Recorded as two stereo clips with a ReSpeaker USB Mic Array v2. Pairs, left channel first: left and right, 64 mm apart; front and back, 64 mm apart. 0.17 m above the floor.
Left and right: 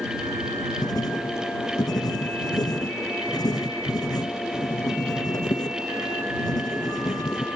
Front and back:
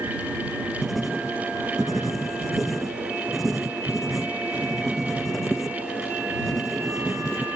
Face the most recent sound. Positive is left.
turn(degrees=90)